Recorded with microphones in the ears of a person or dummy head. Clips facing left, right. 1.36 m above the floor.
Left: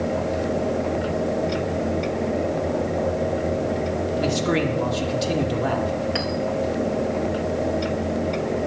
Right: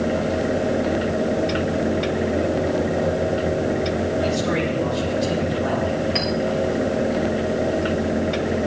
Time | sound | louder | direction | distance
4.2 | a man speaking | even | 80° left | 3 m
6.2 | a clink | right 2 dB | 15° left (ahead or behind) | 3.5 m